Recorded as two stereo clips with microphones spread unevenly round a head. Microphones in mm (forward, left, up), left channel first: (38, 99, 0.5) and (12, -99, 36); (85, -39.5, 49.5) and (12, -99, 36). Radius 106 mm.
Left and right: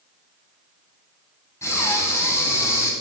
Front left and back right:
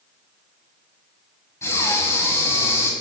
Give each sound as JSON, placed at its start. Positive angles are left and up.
{"t": 1.6, "sound": "breathing", "azimuth_deg": 0, "distance_m": 2.0}